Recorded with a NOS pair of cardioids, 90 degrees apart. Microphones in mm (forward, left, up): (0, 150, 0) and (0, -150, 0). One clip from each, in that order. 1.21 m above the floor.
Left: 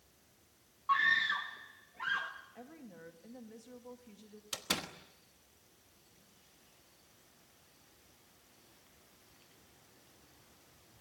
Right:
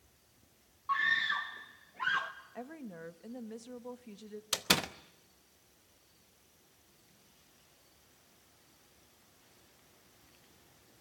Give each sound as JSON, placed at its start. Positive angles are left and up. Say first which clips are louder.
{"t": 0.9, "sound": "a scream", "louder": "left 1 dB", "azimuth_deg": 15, "distance_m": 0.6}
{"t": 2.5, "sound": "a woman speaking", "louder": "right 7 dB", "azimuth_deg": -45, "distance_m": 2.0}
{"t": 4.5, "sound": "a door slam", "louder": "right 7 dB", "azimuth_deg": -40, "distance_m": 1.1}